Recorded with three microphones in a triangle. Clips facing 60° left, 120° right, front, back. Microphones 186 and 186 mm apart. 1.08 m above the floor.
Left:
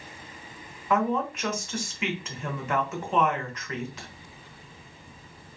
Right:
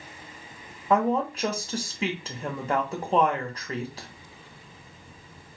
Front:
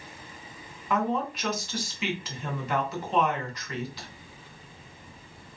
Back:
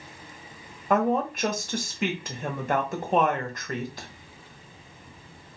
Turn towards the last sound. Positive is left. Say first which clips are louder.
# right 2 dB, back 4 dB
turn(degrees=-165)